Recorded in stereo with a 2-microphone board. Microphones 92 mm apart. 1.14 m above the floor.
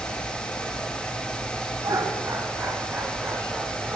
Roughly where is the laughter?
Right.